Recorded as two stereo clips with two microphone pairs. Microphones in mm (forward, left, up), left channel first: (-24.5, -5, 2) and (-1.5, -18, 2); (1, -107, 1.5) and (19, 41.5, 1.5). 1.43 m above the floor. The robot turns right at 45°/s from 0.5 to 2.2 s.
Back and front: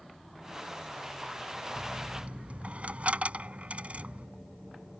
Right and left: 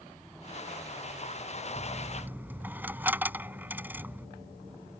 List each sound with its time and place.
1.8 s a dropped coin: 15° right; by 4.3 s 5° left